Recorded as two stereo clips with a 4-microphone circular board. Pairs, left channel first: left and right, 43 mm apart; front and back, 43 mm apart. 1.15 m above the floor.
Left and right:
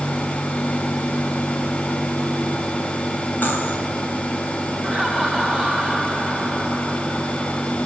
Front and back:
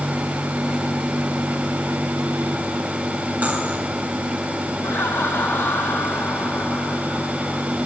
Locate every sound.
3.4 s cutlery clinking: 130° left, 3.5 m
4.8 s laughter: 5° left, 5 m